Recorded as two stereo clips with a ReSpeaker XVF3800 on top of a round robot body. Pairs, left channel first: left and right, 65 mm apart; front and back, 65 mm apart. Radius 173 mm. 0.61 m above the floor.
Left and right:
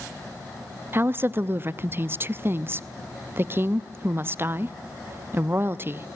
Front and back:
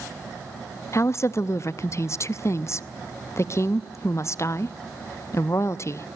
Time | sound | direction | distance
0.9 | a woman speaking | 40° right | 0.9 m